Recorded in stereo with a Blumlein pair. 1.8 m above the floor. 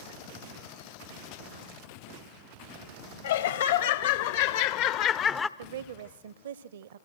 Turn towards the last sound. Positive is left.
turn(degrees=-60)